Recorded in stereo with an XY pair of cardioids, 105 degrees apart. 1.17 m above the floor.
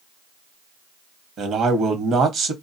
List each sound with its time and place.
1.4 s a man speaking: 70° right, 1.0 m